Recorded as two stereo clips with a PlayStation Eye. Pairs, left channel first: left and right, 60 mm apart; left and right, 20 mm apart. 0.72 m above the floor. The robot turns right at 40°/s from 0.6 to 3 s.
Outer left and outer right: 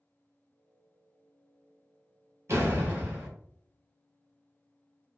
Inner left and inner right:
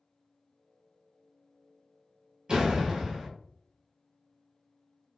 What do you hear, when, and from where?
2.5 s a door slam: 50° right (ahead or behind), 1.4 m; by 3.3 s 25° right (ahead or behind), 1.4 m